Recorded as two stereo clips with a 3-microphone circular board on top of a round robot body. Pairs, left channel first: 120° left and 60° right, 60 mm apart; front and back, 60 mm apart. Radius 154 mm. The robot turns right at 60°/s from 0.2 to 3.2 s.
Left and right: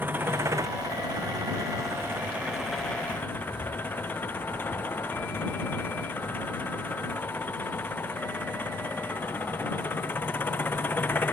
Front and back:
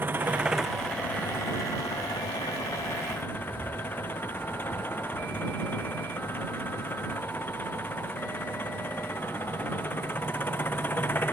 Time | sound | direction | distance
0.0 | an engine running | 120° right | ?